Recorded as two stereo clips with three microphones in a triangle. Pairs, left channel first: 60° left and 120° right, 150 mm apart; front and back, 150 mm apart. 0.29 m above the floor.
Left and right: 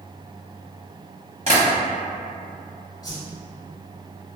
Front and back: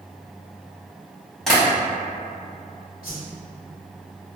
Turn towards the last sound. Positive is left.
turn(degrees=-5)